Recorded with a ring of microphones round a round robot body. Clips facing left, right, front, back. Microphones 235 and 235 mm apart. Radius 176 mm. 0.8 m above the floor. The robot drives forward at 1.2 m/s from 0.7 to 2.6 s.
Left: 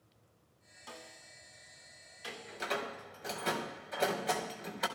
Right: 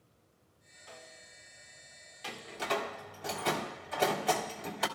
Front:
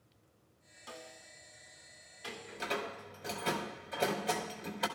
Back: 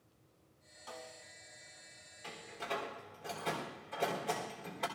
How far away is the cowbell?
No cowbell in this recording.